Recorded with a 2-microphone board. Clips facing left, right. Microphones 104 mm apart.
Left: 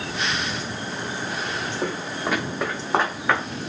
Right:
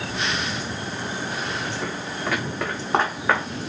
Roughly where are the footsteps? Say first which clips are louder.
Left 2 dB; left.